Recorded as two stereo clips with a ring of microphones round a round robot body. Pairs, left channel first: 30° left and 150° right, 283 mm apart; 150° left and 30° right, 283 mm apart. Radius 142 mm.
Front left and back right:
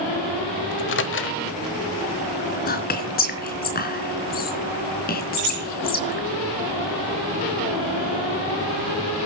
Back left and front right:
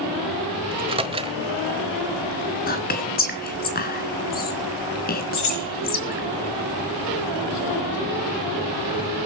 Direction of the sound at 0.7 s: 30° left.